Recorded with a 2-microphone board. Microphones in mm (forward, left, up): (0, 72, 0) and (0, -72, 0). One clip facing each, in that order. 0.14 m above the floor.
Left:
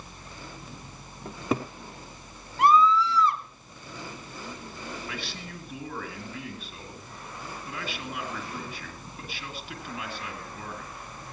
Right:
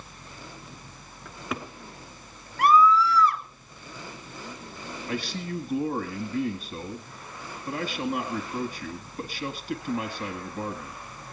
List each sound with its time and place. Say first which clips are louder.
1.2 s a cupboard door: left 6 dB; 35° left (ahead or behind), 1.1 m
2.6 s a scream: right 1 dB; 25° left (ahead or behind), 1.8 m
5.1 s a man speaking: right 7 dB; 45° right (ahead or behind), 2.0 m